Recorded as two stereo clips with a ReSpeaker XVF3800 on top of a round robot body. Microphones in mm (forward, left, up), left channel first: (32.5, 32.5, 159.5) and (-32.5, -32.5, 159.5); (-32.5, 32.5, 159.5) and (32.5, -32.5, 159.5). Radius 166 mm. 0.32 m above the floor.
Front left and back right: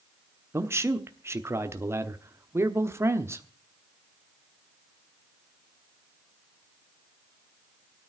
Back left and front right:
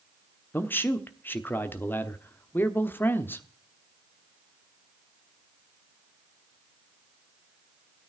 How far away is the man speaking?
About 1.4 m.